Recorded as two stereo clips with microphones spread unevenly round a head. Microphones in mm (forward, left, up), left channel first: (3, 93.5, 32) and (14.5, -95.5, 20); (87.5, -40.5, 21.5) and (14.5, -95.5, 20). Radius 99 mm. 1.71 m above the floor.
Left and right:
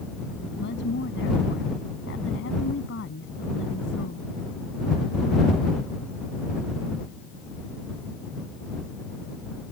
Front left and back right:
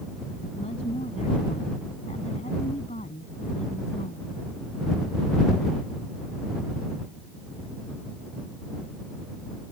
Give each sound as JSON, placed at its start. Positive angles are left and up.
{"t": 0.6, "sound": "a woman speaking", "azimuth_deg": 65}